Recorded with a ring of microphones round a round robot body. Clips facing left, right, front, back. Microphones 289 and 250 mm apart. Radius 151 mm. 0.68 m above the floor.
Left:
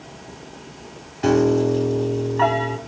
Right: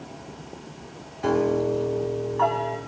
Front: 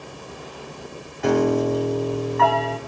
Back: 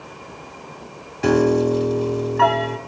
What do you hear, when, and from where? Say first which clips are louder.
1.2 s a piano: left 5 dB, back 3 dB; 135° left, 1.4 m